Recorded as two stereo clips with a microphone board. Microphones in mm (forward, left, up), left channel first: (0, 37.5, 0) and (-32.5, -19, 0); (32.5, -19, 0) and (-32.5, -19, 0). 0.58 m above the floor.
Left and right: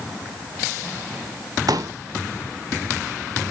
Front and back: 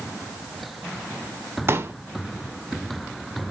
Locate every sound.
1.7 s a pop: 130° right, 0.9 m